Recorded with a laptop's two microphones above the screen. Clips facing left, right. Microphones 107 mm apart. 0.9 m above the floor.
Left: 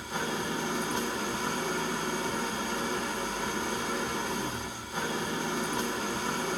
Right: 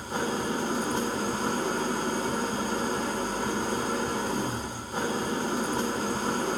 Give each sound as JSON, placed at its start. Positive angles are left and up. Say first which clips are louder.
{"t": 0.0, "sound": "an engine running", "louder": "right 4 dB", "side_deg": -40, "distance_m": 0.7}